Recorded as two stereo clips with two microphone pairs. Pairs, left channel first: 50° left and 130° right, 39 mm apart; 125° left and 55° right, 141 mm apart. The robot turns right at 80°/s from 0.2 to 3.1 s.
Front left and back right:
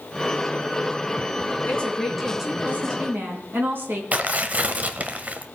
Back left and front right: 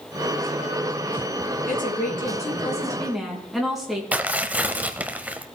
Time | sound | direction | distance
1.6 | a woman speaking | 100° left | 3.5 m
4.1 | tearing paper | 130° right | 0.8 m